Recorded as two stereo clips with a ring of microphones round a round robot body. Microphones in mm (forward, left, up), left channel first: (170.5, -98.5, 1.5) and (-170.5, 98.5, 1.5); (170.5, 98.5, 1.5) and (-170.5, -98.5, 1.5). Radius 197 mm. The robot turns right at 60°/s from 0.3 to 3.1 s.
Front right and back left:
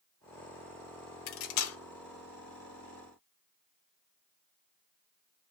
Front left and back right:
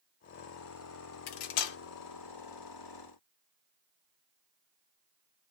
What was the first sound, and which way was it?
Cutlery clinking, straight ahead.